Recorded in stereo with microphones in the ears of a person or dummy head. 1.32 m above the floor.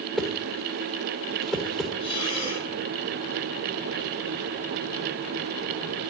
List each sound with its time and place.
0.2 s a whoosh: centre (ahead or behind), 1.0 m
2.0 s breathing: 25° left (ahead or behind), 5 m